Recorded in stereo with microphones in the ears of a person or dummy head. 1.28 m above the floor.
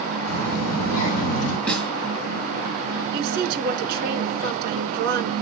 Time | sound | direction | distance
0.3 | a child speaking | 55° left (ahead or behind) | 4 m
1.7 | a snare drum | 5° left (ahead or behind) | 3 m
3.1 | a woman speaking | 50° right (ahead or behind) | 2 m